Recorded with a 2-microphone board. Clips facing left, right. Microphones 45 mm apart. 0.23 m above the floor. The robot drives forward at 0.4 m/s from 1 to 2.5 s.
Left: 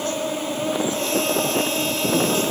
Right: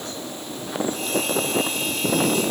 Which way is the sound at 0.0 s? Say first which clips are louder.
Left 9 dB; 60° left (ahead or behind).